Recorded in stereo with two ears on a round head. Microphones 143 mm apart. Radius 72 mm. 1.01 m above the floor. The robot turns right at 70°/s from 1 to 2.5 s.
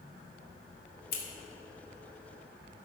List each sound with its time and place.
1.1 s scissors: 65° left (ahead or behind), 1.9 m; by 1.2 s 70° left (ahead or behind), 1.9 m